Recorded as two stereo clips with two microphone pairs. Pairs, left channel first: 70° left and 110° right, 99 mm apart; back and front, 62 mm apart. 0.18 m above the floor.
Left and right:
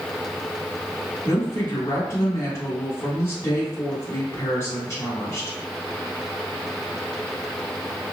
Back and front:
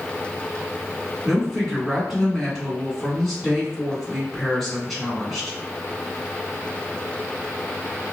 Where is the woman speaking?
90° left, 1.4 m.